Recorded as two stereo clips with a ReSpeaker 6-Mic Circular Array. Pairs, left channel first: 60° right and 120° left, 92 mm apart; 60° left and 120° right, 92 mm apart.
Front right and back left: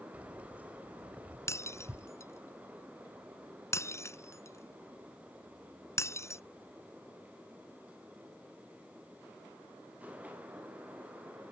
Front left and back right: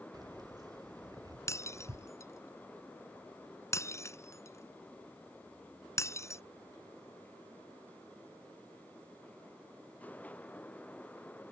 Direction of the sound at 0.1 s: 165° right.